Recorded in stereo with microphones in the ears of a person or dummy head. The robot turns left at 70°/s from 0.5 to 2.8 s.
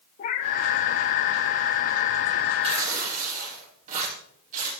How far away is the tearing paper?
About 9 m.